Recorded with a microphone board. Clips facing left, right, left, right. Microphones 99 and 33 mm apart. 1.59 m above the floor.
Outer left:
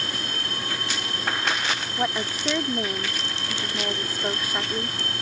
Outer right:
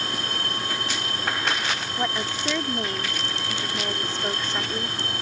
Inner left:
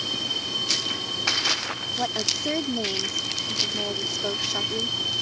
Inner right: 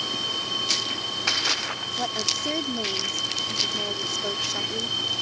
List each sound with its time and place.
2.0 s a woman speaking: 10° left (ahead or behind)